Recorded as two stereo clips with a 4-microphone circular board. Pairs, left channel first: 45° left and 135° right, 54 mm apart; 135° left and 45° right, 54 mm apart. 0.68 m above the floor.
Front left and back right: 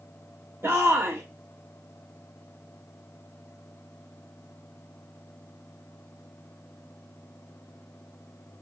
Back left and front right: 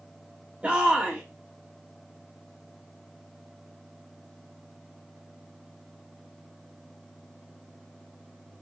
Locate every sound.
0.6 s a shout: 105° right, 1.3 m